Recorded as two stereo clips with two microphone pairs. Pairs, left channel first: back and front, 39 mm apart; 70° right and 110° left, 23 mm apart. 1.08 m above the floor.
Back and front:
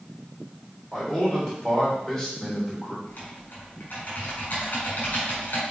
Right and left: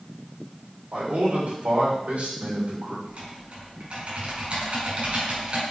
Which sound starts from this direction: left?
A man speaking, at 0.9 s.